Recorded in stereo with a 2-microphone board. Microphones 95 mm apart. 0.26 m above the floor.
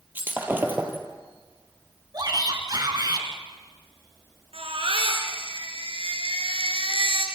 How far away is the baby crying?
About 2.5 m.